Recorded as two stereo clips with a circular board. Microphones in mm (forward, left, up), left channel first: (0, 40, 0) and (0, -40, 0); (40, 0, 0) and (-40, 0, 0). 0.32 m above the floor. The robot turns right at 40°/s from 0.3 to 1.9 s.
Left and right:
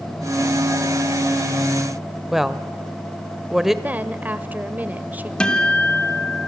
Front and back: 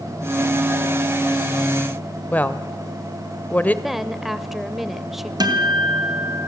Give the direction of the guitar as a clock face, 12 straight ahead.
6 o'clock.